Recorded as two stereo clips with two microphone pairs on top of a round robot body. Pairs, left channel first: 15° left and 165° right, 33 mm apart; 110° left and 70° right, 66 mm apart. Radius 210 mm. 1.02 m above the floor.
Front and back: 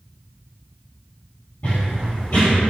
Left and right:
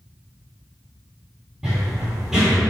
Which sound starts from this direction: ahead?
Running footsteps, at 1.6 s.